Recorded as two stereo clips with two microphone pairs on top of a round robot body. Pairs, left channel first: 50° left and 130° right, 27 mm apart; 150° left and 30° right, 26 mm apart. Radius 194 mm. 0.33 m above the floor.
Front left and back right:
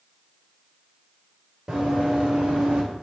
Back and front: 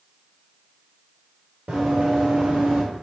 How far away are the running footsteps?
About 4 m.